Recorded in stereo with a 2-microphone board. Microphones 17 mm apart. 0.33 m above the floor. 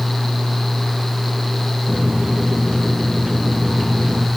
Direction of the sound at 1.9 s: 75° right (ahead or behind).